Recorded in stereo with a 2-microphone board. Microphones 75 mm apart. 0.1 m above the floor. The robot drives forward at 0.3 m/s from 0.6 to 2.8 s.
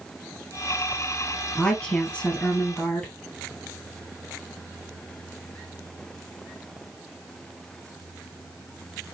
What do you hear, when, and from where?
1.6 s a woman speaking: 15° left (ahead or behind), 1.5 m; by 3.1 s 10° left (ahead or behind), 1.8 m